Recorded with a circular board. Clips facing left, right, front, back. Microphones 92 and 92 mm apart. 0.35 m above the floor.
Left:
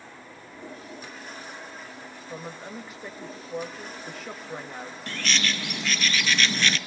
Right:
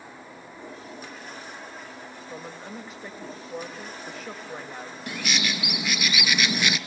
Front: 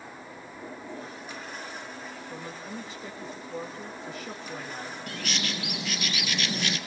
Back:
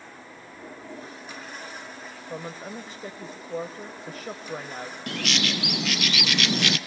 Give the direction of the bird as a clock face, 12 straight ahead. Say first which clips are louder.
Even, back 7 dB; 6 o'clock.